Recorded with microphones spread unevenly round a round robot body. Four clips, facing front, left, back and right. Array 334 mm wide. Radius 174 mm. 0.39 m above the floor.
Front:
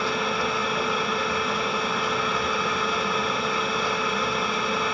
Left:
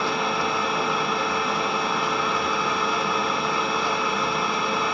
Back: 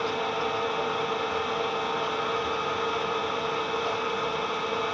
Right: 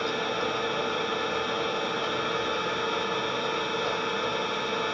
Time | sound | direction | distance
0.0 | an engine running | 15° left | 1.2 m